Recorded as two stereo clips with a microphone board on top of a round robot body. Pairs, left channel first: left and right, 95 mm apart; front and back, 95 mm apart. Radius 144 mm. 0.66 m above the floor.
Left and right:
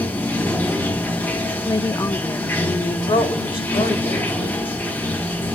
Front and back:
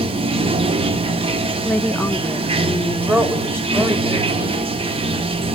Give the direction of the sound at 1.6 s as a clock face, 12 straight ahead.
10 o'clock.